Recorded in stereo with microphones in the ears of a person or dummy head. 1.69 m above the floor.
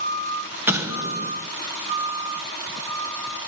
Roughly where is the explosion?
Centre.